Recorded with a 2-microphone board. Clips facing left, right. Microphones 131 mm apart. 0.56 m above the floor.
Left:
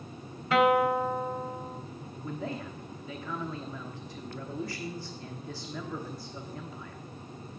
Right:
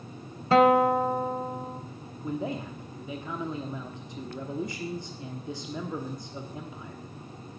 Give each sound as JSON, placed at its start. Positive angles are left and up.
{"t": 0.5, "sound": "a guitar", "side_deg": -35, "distance_m": 1.1}
{"t": 2.2, "sound": "a man speaking", "side_deg": -20, "distance_m": 1.0}